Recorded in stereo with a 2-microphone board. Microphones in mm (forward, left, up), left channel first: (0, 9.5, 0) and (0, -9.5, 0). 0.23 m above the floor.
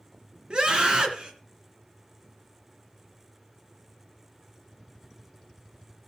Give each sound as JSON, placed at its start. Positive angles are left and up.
{"t": 0.5, "sound": "a scream", "side_deg": -55, "distance_m": 3.0}